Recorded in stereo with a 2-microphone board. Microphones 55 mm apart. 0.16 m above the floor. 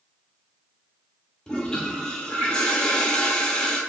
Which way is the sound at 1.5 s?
15° left (ahead or behind).